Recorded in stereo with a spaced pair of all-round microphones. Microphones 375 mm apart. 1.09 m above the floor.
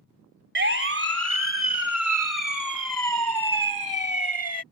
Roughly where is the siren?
Right.